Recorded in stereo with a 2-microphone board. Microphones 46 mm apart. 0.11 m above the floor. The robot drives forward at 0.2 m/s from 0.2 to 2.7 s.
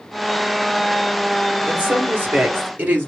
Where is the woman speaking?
40° right (ahead or behind), 2 m.